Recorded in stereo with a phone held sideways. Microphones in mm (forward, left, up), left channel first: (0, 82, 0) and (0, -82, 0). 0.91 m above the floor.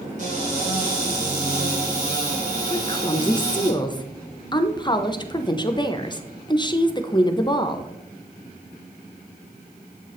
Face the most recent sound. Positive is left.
turn(degrees=25)  # may be behind; listen again after turning